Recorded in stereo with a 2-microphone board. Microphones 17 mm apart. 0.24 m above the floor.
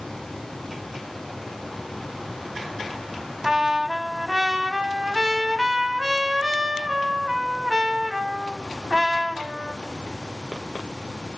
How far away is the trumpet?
About 0.5 m.